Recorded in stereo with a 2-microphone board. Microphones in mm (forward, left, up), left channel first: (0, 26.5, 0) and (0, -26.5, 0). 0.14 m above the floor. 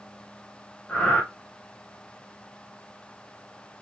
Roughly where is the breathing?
Centre.